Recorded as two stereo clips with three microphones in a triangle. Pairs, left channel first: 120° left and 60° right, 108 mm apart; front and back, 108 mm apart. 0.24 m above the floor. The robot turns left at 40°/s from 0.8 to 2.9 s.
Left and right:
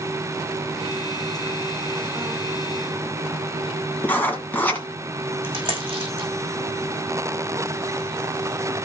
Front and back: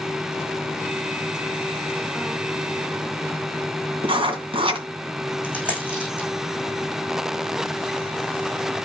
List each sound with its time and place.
4.0 s writing: 170° right, 2.5 m
5.4 s a dropped coin: 100° right, 5.5 m